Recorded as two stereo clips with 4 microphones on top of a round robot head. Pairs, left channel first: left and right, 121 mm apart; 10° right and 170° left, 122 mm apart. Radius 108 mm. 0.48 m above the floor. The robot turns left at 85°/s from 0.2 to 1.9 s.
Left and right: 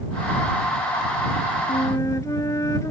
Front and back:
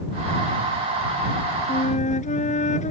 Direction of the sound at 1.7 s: 35° left.